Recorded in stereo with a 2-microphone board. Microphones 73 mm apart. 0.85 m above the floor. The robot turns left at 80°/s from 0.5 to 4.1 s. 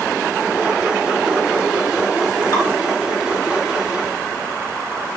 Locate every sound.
2.5 s dripping: 60° left (ahead or behind), 1.3 m; by 2.6 s 55° left (ahead or behind), 1.3 m